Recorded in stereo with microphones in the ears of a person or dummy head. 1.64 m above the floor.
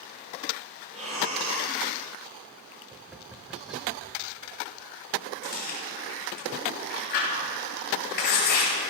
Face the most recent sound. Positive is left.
turn(degrees=55)  # may be behind; listen again after turning